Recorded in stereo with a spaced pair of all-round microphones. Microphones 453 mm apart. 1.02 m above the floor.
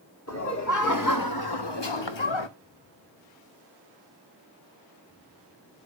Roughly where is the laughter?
Left.